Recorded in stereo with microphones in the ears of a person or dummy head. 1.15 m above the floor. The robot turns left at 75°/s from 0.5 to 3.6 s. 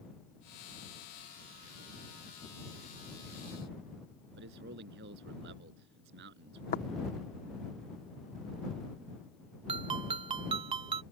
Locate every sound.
4.4 s a man speaking: 60° right (ahead or behind)
6.7 s tapping: 50° left (ahead or behind)
9.7 s a ringtone: 30° right (ahead or behind)